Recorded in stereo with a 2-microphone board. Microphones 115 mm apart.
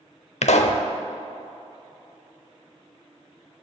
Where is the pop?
75° left (ahead or behind), 0.7 m.